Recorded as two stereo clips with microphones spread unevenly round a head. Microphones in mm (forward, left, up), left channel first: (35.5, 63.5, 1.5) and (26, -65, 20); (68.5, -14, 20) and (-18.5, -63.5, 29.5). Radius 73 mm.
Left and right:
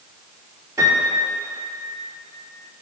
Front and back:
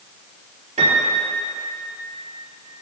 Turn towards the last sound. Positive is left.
turn(degrees=-165)